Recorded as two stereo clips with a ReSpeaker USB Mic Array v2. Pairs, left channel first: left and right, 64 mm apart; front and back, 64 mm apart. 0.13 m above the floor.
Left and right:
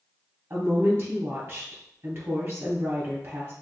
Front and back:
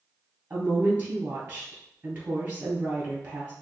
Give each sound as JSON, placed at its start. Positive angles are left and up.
{"t": 0.5, "sound": "a woman speaking", "azimuth_deg": -125, "distance_m": 2.0}